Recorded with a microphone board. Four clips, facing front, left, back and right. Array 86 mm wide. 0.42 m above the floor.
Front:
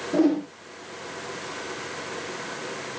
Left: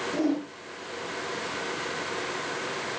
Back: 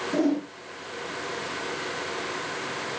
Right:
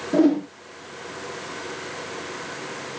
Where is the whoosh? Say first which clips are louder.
Right 10 dB, front 4 dB; 100° right, 8 m.